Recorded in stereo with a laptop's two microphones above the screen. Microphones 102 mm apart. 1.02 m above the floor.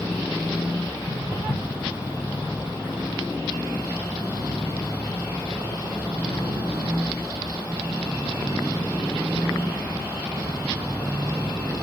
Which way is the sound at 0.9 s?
25° left (ahead or behind).